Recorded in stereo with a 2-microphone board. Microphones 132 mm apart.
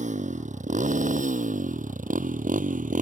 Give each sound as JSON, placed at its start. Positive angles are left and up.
{"t": 0.0, "sound": "a motorcycle", "side_deg": -65}